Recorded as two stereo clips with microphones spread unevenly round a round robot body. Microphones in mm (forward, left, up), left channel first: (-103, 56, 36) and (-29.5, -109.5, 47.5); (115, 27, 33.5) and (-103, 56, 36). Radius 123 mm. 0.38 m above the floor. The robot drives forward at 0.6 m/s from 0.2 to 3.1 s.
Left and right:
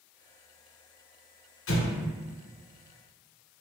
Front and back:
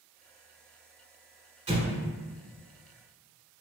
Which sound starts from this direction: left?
An explosion, at 1.7 s.